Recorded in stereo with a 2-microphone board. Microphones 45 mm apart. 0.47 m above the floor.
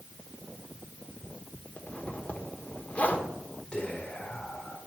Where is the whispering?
20° left (ahead or behind), 1.6 m.